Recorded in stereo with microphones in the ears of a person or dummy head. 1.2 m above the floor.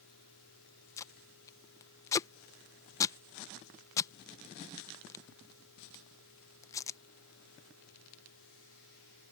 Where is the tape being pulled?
20° left (ahead or behind).